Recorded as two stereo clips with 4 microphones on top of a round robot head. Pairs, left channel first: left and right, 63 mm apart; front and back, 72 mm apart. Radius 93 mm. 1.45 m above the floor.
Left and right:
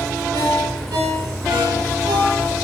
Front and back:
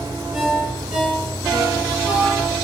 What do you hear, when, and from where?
0.3 s a ringtone: 100° right, 7 m